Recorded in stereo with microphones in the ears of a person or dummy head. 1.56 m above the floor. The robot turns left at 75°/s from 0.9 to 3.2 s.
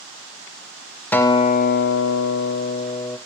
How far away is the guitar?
About 0.6 m.